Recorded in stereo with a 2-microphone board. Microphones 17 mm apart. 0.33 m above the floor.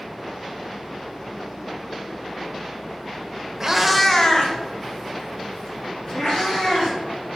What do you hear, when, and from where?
3.6 s a cat meowing: 30° right (ahead or behind), 0.5 m; by 7.0 s 80° left, 3 m